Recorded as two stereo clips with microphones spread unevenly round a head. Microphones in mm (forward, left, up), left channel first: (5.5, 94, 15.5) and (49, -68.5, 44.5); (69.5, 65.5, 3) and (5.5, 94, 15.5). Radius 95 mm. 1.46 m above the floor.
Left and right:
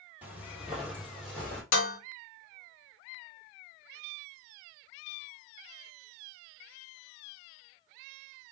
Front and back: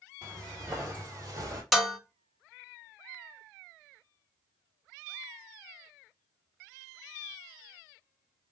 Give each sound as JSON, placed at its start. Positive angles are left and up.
{"t": 0.2, "sound": "footsteps", "azimuth_deg": -145, "distance_m": 2.0}
{"t": 1.7, "sound": "dishes clattering", "azimuth_deg": 70, "distance_m": 0.9}